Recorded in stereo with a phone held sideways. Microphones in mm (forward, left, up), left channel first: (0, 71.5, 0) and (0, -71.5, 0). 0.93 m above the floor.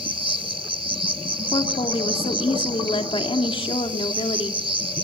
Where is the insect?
40° right (ahead or behind), 1.0 m.